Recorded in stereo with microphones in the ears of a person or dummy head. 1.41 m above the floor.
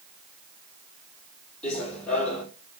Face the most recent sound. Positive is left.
turn(degrees=10)  # may be behind; listen again after turning